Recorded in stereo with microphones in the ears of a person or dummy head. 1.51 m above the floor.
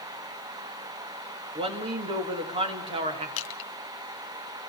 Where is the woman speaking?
30° right (ahead or behind), 2.5 m.